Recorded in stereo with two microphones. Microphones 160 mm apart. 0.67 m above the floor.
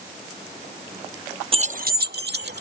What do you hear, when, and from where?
1.5 s keys jangling: 35° right (ahead or behind); by 2.6 s 75° right (ahead or behind)